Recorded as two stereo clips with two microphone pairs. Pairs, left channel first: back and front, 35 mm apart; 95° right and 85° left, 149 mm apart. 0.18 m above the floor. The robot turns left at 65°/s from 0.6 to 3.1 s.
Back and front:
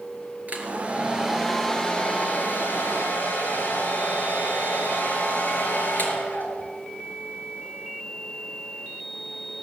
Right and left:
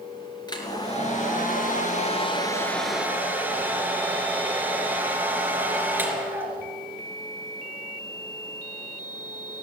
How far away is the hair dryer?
About 4 m.